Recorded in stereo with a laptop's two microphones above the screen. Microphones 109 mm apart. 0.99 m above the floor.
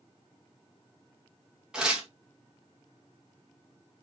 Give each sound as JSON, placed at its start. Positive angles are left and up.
{"t": 1.7, "sound": "tearing paper", "side_deg": -10, "distance_m": 0.8}